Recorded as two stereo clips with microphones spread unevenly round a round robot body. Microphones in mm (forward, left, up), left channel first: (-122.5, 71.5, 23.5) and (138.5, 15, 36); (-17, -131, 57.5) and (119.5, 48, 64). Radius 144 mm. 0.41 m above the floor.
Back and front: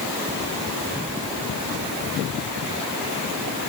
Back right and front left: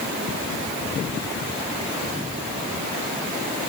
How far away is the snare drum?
No snare drum in this recording.